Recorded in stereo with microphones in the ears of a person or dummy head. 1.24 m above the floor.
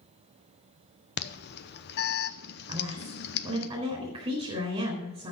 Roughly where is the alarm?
Left.